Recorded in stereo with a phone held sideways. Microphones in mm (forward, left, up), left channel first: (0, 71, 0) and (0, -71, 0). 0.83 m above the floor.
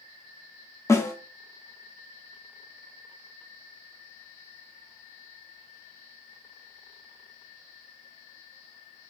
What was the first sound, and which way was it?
A snare drum, 20° left (ahead or behind).